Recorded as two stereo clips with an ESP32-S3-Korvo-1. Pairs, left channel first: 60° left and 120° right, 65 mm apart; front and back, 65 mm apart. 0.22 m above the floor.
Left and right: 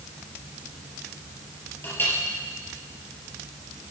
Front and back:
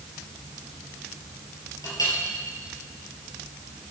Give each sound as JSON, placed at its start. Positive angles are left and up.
{"t": 1.8, "sound": "a clink", "azimuth_deg": 5, "distance_m": 4.0}